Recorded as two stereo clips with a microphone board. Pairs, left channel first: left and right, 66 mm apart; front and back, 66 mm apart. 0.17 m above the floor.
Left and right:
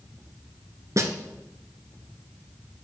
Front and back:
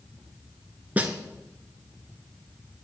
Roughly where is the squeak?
I don't hear a squeak.